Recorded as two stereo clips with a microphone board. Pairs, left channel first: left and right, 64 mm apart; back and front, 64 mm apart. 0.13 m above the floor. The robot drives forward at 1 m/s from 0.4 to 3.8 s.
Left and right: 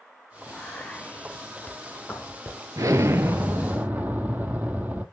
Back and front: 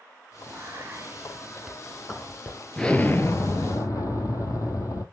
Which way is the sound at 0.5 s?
20° left.